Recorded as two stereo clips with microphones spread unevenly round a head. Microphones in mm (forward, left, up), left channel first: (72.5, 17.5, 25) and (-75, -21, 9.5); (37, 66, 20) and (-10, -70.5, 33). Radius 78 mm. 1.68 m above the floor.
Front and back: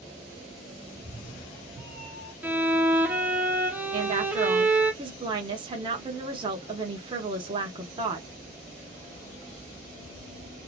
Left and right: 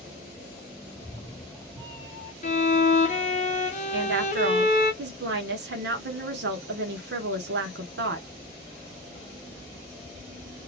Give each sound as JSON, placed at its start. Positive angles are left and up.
{"t": 0.9, "sound": "a cat meowing", "azimuth_deg": -170, "distance_m": 1.8}
{"t": 2.4, "sound": "a violin", "azimuth_deg": 110, "distance_m": 0.7}
{"t": 3.9, "sound": "a woman speaking", "azimuth_deg": -105, "distance_m": 1.0}